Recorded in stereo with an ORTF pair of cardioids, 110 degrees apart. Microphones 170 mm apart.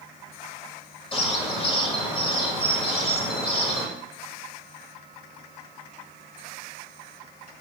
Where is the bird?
35° left, 1.2 m.